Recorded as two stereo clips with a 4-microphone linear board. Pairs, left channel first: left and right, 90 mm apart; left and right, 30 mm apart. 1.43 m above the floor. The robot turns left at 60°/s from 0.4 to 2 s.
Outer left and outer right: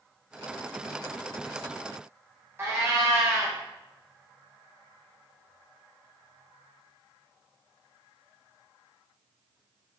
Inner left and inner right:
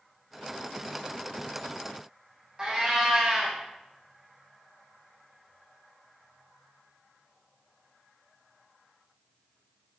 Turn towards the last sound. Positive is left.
turn(degrees=-25)  # may be behind; listen again after turning